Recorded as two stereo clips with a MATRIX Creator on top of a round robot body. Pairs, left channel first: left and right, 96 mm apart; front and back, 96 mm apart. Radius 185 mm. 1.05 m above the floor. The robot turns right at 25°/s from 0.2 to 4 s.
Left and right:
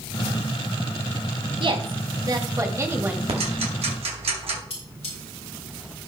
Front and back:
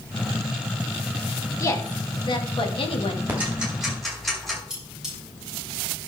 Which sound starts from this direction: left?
Cutlery clinking, at 4.7 s.